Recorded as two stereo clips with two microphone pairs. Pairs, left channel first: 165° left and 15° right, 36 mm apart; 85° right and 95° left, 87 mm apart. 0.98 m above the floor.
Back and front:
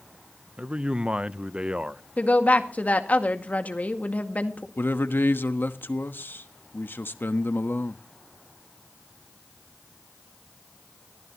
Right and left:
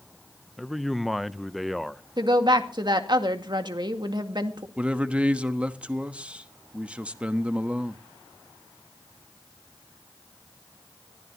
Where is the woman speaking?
125° left, 1.9 m.